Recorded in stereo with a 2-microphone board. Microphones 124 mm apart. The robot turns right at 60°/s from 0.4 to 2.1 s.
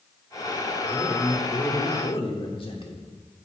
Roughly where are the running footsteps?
I don't hear running footsteps.